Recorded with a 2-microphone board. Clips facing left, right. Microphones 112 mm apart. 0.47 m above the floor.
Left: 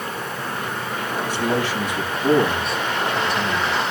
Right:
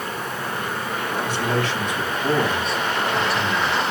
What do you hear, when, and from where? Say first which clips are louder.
1.2 s a man speaking: left 2 dB; 15° left (ahead or behind), 3.5 m; by 3.8 s 10° right (ahead or behind), 3 m